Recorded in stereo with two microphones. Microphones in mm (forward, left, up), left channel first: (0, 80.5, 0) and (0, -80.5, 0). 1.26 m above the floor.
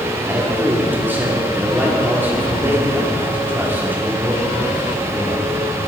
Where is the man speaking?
15° right (ahead or behind), 4 m.